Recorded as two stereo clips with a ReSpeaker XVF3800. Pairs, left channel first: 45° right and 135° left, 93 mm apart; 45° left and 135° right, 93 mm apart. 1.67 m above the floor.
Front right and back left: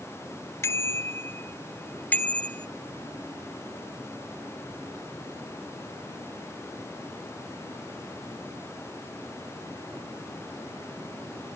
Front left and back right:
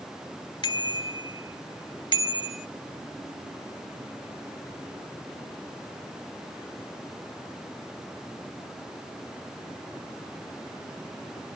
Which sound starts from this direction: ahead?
A bicycle bell, at 0.6 s.